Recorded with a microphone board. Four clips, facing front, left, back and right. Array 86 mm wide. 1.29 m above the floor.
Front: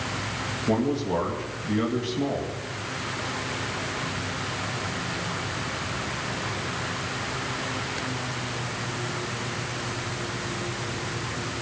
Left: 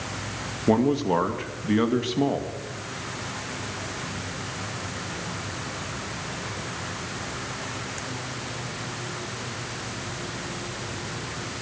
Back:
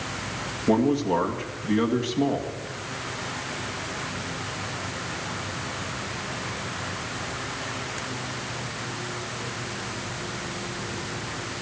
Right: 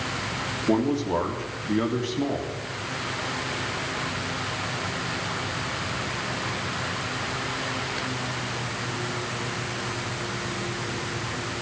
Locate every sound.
0.7 s a man speaking: 105° left, 2.5 m